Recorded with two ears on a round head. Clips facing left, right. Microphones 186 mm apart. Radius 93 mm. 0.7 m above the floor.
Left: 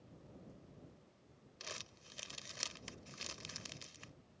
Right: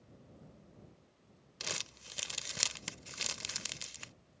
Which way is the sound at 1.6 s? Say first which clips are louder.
Right 7 dB; 65° right (ahead or behind).